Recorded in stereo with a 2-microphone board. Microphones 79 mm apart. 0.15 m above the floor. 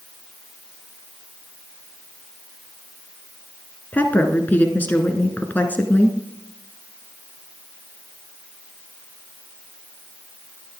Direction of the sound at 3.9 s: 25° left (ahead or behind).